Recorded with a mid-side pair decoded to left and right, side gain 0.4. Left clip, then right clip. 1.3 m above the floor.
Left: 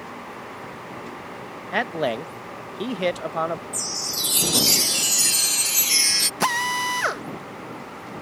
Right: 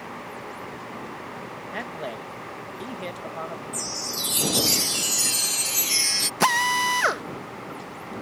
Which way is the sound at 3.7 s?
25° left.